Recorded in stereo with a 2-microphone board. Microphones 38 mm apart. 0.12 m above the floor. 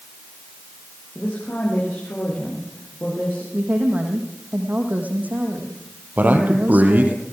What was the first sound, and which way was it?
A woman speaking, 60° left (ahead or behind).